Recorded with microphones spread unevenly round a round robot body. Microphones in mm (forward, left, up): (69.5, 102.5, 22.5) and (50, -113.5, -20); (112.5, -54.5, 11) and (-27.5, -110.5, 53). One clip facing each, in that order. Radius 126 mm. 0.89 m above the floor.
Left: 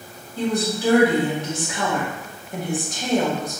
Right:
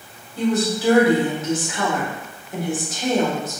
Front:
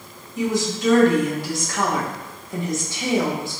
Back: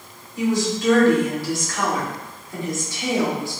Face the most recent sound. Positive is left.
turn(degrees=-20)